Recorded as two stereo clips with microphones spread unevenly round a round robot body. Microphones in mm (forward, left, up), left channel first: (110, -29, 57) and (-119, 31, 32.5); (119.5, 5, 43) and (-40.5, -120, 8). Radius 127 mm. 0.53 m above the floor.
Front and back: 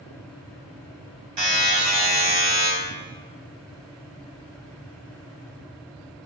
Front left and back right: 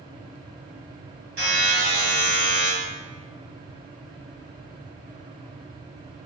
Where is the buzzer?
165° left, 1.9 m.